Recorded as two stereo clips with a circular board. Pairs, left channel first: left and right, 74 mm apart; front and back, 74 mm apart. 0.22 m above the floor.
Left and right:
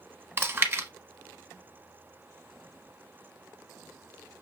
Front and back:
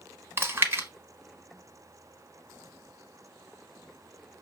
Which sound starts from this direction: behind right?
Chewing, at 0.4 s.